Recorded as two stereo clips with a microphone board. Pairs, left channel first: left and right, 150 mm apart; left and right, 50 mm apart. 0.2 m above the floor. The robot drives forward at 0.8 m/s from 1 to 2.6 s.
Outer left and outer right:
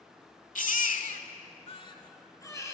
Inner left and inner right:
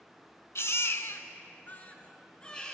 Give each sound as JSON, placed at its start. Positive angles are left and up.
{"t": 0.6, "sound": "a baby crying", "side_deg": 65, "distance_m": 0.5}